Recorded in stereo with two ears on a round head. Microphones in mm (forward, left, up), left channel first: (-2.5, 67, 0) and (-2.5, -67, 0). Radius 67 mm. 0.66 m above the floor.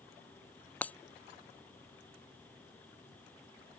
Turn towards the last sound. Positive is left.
turn(degrees=10)  # may be behind; listen again after turning